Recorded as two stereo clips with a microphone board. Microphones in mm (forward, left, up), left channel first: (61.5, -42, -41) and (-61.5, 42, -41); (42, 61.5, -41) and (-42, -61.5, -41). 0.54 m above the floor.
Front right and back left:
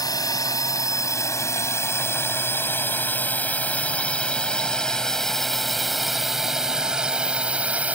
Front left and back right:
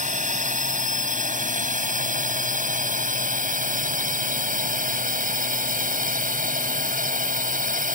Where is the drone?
100° right; by 8.0 s 135° right.